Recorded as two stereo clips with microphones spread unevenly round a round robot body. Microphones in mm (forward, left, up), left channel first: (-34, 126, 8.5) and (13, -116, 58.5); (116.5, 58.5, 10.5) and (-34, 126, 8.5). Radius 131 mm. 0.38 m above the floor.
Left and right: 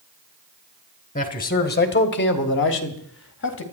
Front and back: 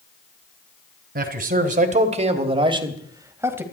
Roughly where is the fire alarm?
No fire alarm in this recording.